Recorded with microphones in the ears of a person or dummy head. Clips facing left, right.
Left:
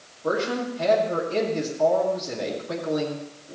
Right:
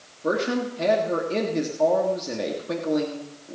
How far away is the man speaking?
About 1.9 m.